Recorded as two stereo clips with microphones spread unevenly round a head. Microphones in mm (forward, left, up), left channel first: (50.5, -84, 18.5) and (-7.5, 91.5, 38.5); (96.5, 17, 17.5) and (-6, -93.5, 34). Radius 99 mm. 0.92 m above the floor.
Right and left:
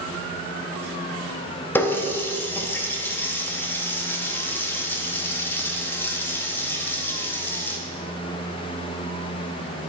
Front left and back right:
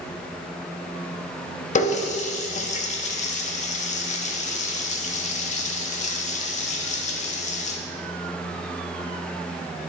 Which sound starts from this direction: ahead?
A running tap, at 1.8 s.